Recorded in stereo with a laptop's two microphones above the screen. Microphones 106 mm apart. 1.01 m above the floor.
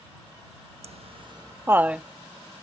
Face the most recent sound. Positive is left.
turn(degrees=-5)  # may be behind; listen again after turning